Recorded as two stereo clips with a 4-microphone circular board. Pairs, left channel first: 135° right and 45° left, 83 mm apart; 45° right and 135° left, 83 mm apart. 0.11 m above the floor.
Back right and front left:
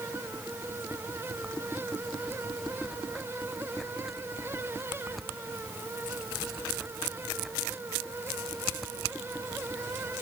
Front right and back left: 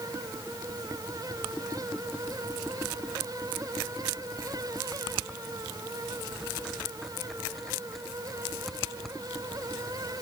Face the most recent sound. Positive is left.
No sound to turn to.